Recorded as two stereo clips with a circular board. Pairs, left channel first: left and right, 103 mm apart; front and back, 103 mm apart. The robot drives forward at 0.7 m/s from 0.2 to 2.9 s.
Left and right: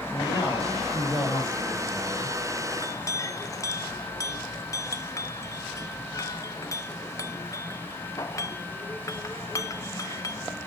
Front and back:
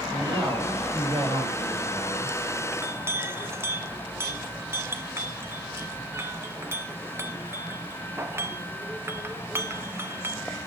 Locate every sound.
0.1 s a man speaking: 140° left, 6.5 m; by 2.6 s 150° left, 7.5 m
2.7 s a clink: 115° left, 0.7 m; by 10.7 s 125° left, 0.7 m